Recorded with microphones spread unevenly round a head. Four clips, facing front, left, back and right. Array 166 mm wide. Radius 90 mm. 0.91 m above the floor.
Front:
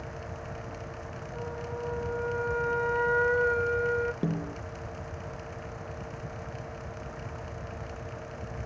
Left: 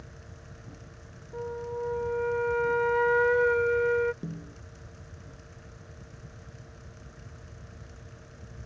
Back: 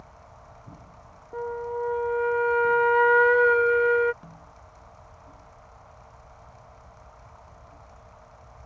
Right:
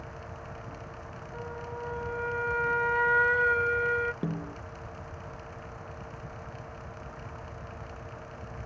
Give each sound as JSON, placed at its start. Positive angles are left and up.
{"t": 0.0, "sound": "a fan", "azimuth_deg": -20}
{"t": 1.3, "sound": "a flute", "azimuth_deg": -170}
{"t": 4.2, "sound": "a snare drum", "azimuth_deg": -30}